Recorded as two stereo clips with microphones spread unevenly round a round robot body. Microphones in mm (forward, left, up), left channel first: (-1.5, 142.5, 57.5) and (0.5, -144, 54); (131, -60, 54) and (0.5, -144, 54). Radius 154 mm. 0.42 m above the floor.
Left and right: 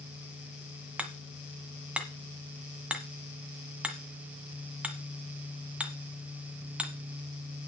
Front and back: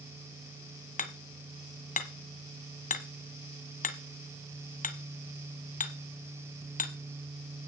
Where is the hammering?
5° right, 1.7 m.